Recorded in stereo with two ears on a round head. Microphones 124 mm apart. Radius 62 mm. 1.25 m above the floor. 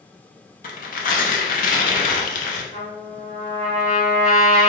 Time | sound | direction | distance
0.6 | tearing paper | 65° left (ahead or behind) | 0.5 m
2.7 | a trumpet | 30° left (ahead or behind) | 1.2 m